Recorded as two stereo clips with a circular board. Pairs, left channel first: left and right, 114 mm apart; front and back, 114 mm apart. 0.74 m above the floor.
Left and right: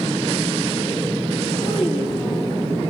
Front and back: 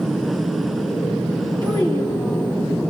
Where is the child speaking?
130° left, 3 m.